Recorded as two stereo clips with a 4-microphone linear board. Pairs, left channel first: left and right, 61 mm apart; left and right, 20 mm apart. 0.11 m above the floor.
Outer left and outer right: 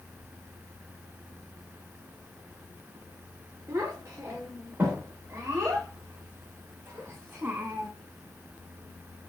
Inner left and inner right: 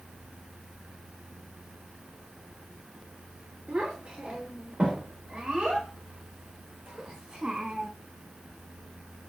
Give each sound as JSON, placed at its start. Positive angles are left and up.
{"t": 3.7, "sound": "a child speaking", "side_deg": -55, "distance_m": 6.0}